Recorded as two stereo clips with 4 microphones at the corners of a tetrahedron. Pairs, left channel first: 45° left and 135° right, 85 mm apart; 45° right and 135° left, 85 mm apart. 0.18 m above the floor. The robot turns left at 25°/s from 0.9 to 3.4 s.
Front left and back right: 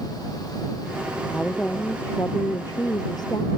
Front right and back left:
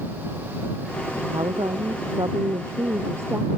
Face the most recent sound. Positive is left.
turn(degrees=75)